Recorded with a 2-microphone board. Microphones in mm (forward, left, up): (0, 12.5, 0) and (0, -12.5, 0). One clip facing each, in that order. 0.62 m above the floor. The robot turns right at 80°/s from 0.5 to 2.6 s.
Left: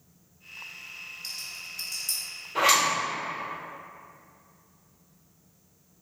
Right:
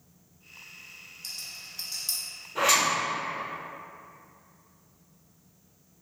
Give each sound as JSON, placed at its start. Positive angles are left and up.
{"t": 1.2, "sound": "a rattle", "side_deg": 10, "distance_m": 1.0}
{"t": 2.5, "sound": "a zipper", "side_deg": 60, "distance_m": 1.9}